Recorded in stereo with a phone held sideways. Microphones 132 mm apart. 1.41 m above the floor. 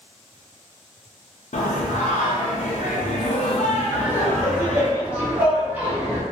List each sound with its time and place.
1.5 s singing: 70° left (ahead or behind), 0.5 m
3.9 s laughter: 10° right (ahead or behind), 0.9 m